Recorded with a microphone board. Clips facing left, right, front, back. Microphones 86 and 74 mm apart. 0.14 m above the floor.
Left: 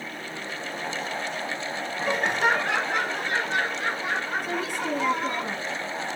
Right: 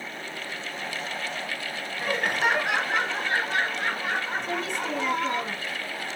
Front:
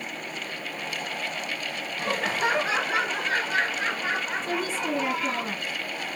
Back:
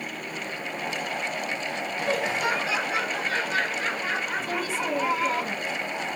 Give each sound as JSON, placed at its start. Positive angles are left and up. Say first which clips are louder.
{"t": 2.0, "sound": "laughter", "louder": "left 2 dB, even", "azimuth_deg": 20, "distance_m": 1.3}
{"t": 4.4, "sound": "a woman speaking", "louder": "left 1 dB, even", "azimuth_deg": 20, "distance_m": 1.3}